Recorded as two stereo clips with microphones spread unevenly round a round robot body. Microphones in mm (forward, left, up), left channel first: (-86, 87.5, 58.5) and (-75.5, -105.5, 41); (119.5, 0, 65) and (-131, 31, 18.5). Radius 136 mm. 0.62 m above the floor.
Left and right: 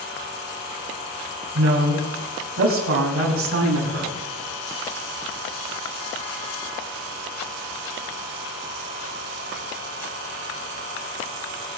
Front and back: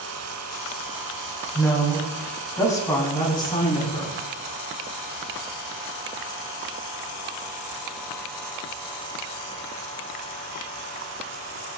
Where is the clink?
I don't hear a clink.